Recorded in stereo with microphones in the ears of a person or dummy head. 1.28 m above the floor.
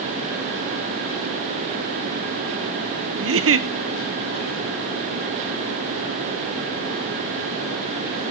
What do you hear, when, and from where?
3.2 s a giggle: 60° right (ahead or behind), 0.8 m